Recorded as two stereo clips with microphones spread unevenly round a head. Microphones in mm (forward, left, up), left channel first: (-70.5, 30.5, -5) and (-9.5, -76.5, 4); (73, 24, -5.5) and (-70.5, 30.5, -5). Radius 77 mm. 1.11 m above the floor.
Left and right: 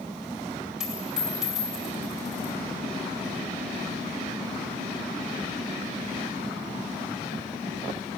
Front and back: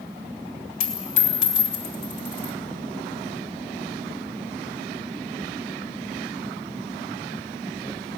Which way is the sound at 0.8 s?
25° left.